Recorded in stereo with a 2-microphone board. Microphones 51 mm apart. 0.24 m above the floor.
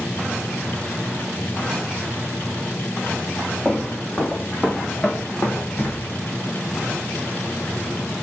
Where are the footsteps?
Centre (ahead or behind), 2.5 m; by 6.1 s 45° left (ahead or behind), 1.5 m.